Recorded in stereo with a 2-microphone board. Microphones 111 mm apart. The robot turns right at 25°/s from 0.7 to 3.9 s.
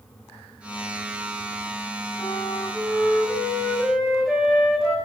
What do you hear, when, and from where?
2.2 s a flute: 135° left, 7.5 m; by 5.0 s straight behind, 7.5 m